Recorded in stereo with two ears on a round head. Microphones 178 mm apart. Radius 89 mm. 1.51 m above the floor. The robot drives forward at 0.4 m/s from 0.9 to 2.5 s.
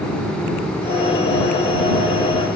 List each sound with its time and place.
Only background noise.